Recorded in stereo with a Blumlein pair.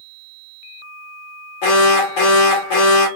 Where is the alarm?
50° left, 1.2 m.